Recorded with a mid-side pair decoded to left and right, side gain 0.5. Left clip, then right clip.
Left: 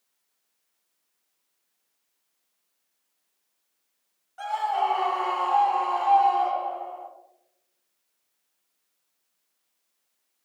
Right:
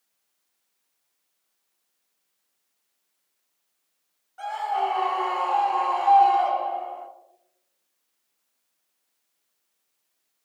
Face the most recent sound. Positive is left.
turn(degrees=-45)